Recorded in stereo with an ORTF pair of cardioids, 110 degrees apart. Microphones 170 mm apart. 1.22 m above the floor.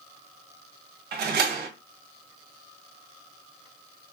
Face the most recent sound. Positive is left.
turn(degrees=-65)